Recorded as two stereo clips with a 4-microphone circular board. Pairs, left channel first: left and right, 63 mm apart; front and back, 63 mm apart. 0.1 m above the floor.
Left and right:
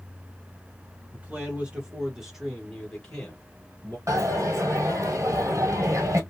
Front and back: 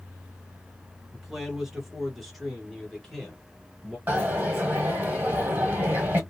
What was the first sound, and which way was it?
A man speaking, 100° right.